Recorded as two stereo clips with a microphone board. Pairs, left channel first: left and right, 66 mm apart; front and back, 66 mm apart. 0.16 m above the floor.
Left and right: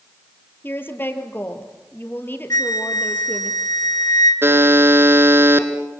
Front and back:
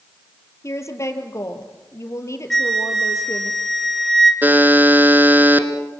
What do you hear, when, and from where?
0.6 s a woman speaking: 35° left, 3.5 m
2.5 s a flute: 85° left, 2.5 m
4.4 s a buzzer: 125° right, 2.0 m